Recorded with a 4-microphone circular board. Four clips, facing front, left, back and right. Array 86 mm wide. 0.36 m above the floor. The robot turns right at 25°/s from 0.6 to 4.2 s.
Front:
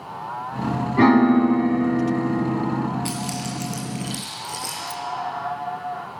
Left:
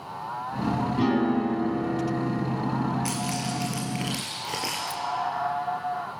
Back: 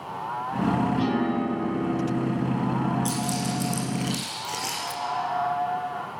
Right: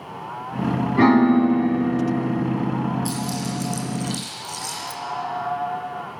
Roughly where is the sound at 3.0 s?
Left.